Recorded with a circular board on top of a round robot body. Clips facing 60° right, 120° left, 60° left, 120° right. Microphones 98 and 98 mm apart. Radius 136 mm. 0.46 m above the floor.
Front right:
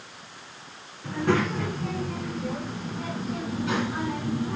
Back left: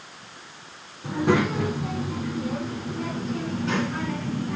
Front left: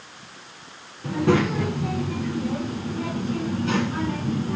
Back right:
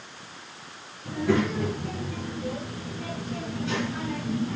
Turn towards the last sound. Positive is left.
turn(degrees=15)